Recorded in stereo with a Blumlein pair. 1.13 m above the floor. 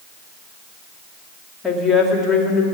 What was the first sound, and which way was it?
A woman speaking, 10° left.